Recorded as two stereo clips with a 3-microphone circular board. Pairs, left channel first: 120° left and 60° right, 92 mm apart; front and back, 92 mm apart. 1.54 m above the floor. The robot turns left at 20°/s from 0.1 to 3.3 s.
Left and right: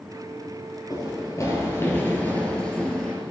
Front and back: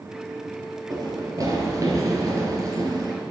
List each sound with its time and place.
0.9 s running footsteps: 150° left, 2.5 m; by 3.1 s 160° right, 2.5 m